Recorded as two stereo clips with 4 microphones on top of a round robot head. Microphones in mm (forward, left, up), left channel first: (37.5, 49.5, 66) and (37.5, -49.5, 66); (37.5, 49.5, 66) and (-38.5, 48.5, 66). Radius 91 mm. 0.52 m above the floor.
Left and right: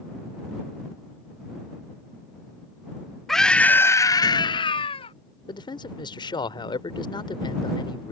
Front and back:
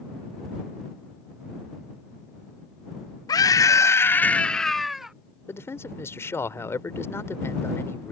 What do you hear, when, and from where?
3.3 s a scream: 5° left; by 5.1 s 100° left
5.5 s a man speaking: 55° left